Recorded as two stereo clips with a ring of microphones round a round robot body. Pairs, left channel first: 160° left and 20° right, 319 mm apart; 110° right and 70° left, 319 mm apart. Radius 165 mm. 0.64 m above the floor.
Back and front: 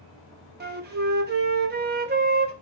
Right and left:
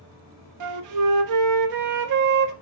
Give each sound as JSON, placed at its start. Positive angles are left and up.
{"t": 0.6, "sound": "a flute", "azimuth_deg": 40, "distance_m": 0.6}